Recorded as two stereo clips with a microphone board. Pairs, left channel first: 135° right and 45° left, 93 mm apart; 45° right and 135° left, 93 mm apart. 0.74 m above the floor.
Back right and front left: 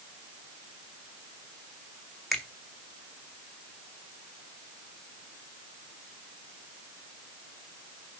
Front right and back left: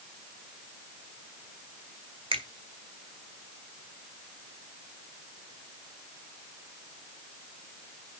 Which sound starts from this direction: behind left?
A finger snap, at 2.3 s.